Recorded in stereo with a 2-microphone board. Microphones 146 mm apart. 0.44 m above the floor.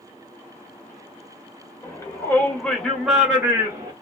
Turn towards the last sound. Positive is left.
turn(degrees=-25)  # may be behind; listen again after turning